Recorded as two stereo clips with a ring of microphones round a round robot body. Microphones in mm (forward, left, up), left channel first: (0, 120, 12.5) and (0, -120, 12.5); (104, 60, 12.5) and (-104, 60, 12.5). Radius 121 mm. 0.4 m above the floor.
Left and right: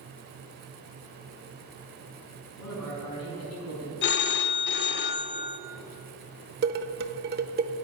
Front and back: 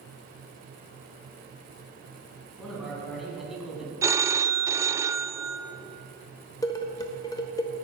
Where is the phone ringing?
110° left, 0.6 m.